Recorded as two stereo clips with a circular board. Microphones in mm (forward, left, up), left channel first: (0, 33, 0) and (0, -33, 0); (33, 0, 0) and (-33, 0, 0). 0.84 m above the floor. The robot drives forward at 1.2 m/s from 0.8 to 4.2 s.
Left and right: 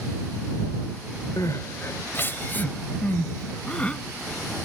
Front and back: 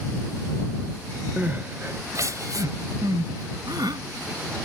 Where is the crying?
110° left; by 4.0 s 165° left.